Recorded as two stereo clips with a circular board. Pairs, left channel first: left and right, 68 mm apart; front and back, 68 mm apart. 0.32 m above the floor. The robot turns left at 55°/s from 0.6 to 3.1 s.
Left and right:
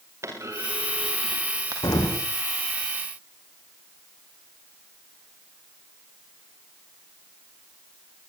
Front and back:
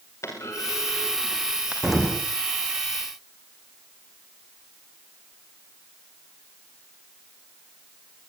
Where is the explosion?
100° left, 6.5 m; by 2.2 s 80° left, 6.5 m.